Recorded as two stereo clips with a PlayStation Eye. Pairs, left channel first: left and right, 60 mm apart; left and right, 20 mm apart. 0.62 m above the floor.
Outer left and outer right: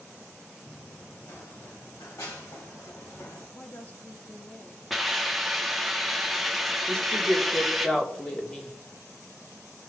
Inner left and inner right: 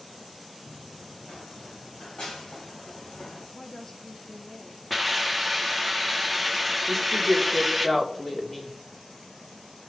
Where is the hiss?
Centre (ahead or behind), 1.1 m.